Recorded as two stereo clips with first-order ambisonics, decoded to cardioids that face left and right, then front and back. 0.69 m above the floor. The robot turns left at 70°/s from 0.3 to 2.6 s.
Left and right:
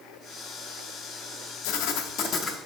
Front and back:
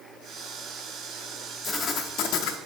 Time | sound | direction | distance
1.6 | writing | 85° left | 0.5 m